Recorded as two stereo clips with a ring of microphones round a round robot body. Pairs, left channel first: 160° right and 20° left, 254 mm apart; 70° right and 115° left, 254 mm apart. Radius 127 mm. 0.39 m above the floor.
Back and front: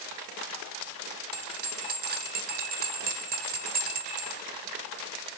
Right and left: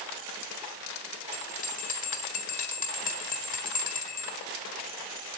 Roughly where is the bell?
Ahead.